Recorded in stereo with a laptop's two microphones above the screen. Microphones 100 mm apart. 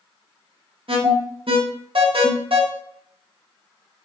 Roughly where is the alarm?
Right.